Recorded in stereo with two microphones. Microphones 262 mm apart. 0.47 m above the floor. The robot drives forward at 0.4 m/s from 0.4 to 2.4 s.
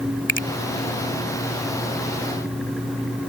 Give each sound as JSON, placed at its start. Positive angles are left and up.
{"t": 0.3, "sound": "a finger snap", "side_deg": 45}